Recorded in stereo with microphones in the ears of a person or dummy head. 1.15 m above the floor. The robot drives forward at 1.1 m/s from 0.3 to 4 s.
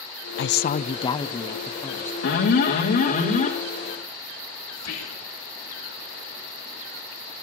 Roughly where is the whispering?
Left.